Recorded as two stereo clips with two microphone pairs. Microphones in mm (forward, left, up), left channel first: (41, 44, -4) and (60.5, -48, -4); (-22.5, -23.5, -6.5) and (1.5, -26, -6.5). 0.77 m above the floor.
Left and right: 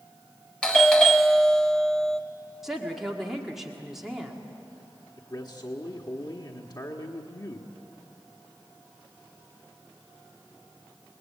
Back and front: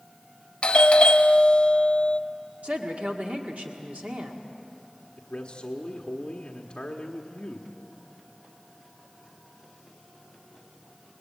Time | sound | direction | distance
0.6 | a doorbell | straight behind | 1.1 m
2.6 | a woman speaking | 5° left | 1.8 m
5.2 | a man speaking | 140° left | 1.4 m